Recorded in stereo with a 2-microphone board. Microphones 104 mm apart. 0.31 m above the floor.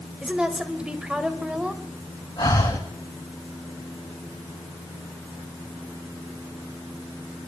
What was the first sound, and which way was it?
A woman speaking, 10° right (ahead or behind).